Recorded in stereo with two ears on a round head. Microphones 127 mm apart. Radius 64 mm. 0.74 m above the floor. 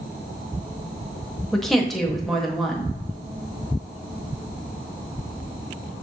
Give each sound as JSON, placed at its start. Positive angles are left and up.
{"t": 1.5, "sound": "a woman speaking", "side_deg": 0, "distance_m": 0.7}